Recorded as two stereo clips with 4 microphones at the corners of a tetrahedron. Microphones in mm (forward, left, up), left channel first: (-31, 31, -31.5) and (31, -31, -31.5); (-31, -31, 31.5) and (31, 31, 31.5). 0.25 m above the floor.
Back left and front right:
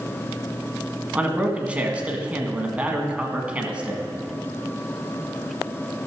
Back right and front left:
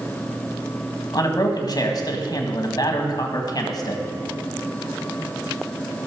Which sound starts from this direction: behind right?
A man speaking, at 1.1 s.